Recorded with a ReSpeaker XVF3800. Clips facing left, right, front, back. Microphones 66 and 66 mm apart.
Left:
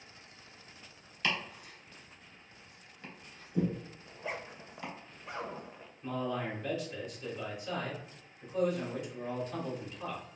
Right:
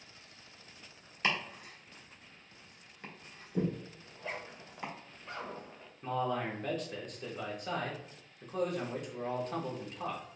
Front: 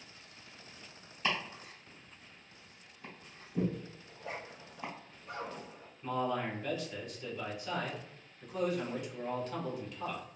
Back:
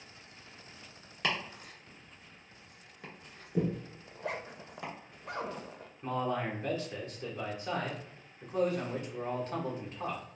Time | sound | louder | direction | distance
1.2 | chopping | right 1 dB, back 1 dB | 155° right | 1.6 m
4.1 | a zipper | left 2 dB, back 6 dB | 170° left | 0.6 m
6.0 | a man speaking | right 2 dB, back 1 dB | 125° right | 1.3 m